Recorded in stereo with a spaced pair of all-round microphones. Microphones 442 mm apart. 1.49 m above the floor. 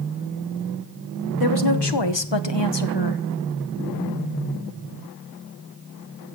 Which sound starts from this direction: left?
A woman speaking, at 1.4 s.